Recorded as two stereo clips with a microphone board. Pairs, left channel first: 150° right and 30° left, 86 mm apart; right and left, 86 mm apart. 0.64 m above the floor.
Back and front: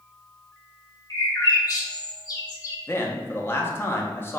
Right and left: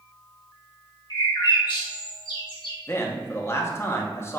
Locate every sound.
1.1 s a bird: 110° right, 0.9 m
2.9 s a man speaking: 115° right, 0.6 m